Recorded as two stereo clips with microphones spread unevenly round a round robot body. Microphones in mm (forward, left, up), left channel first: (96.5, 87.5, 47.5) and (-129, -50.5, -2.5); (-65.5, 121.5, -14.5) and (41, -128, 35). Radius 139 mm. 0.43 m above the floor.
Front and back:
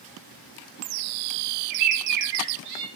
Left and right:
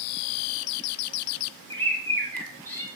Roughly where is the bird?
Behind.